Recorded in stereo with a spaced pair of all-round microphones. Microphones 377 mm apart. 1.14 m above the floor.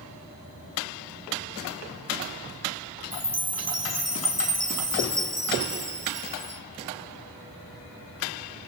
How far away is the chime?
About 2.5 m.